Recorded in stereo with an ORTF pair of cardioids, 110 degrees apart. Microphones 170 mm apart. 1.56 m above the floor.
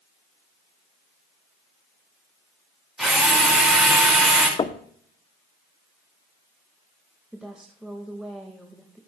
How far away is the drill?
About 5.5 m.